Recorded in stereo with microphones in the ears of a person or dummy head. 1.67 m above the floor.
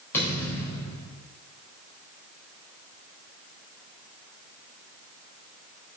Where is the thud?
10° left (ahead or behind), 4.5 m.